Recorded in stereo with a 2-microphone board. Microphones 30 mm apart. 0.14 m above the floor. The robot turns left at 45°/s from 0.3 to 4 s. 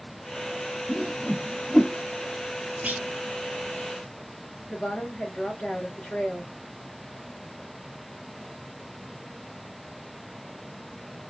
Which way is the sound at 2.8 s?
60° right (ahead or behind).